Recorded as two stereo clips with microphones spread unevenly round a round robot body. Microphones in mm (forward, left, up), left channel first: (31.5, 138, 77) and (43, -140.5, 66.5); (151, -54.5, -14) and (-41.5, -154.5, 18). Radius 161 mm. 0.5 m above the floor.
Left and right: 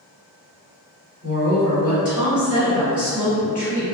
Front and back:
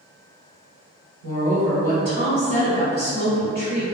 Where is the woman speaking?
70° left, 2.0 m.